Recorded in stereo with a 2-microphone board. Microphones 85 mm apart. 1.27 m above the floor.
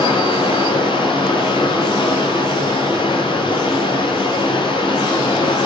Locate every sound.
0.0 s running water: 75° left (ahead or behind), 8.5 m